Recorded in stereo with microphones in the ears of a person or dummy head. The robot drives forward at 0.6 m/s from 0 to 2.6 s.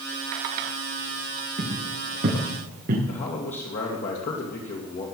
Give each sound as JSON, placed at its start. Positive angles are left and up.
{"t": 1.6, "sound": "footsteps", "side_deg": -40, "distance_m": 6.5}
{"t": 3.1, "sound": "a man speaking", "side_deg": 40, "distance_m": 2.5}